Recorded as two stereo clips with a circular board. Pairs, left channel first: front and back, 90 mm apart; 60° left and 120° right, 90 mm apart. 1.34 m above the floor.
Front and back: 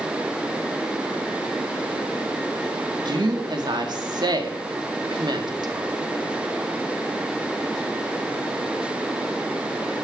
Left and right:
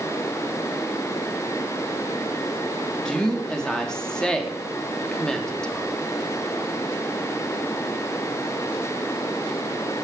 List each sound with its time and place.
3.0 s a woman speaking: 140° left, 3.5 m